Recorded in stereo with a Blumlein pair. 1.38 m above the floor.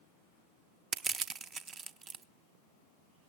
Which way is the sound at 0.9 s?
25° right.